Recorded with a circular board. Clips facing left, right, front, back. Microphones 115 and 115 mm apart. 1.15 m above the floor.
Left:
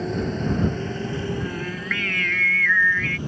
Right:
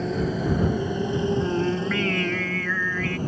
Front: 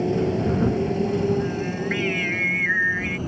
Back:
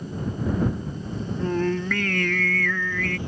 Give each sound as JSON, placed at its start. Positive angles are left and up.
{"t": 0.0, "sound": "a motorcycle", "azimuth_deg": 0}
{"t": 1.4, "sound": "singing", "azimuth_deg": -150}